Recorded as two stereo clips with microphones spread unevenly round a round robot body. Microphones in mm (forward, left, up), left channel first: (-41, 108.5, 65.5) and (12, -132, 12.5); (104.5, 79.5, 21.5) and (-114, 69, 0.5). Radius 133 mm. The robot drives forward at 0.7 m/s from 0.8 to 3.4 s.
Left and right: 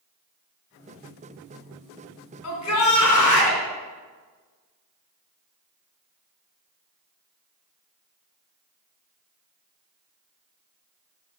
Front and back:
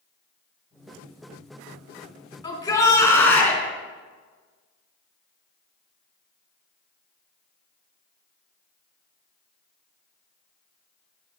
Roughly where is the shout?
Left.